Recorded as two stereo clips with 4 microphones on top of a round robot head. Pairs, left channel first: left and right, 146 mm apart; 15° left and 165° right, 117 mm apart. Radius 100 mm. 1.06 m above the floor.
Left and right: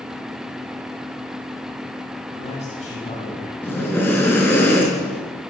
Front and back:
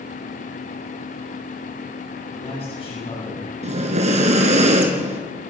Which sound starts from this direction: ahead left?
A man speaking, at 2.3 s.